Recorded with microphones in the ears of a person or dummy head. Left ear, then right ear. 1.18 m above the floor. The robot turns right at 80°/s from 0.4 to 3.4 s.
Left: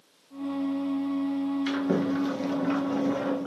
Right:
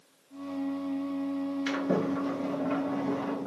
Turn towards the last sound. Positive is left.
turn(degrees=130)